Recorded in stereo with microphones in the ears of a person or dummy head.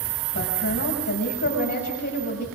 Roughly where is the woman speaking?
Left.